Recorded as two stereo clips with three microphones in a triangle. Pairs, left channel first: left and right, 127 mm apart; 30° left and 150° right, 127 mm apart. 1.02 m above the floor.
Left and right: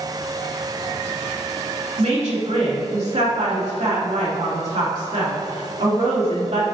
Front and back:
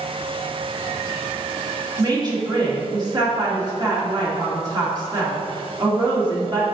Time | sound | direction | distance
2.0 | a woman speaking | 95° right | 2 m